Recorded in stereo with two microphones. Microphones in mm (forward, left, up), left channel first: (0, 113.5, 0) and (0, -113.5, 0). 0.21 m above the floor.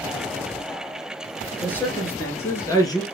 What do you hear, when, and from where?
1.6 s a man speaking: 5° left (ahead or behind), 3 m; by 3.0 s 15° left (ahead or behind), 2.5 m